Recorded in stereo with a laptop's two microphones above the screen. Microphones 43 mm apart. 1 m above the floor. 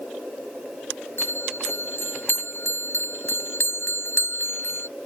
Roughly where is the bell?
Left.